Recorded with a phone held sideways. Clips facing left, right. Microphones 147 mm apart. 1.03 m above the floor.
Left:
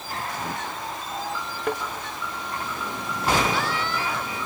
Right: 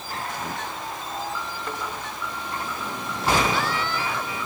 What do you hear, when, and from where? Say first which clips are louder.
1.7 s a thud: left 9 dB; 65° left (ahead or behind), 5.5 m